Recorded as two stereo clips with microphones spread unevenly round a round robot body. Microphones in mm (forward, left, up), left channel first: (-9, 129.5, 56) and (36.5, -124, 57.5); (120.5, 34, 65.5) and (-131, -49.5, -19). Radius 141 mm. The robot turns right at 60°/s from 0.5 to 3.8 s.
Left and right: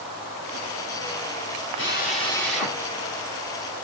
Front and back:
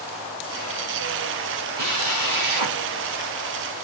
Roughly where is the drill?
Behind left.